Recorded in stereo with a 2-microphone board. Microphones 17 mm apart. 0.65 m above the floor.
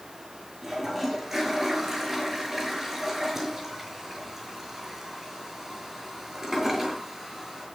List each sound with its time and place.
0.6 s a toilet flushing: 20° right (ahead or behind), 6.5 m